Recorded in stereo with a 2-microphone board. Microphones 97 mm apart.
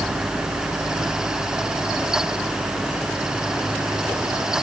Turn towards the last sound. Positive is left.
No sound to turn to.